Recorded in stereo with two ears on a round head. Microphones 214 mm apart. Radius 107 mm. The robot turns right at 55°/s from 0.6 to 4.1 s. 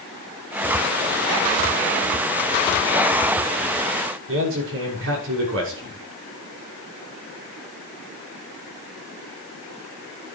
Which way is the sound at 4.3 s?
55° right (ahead or behind).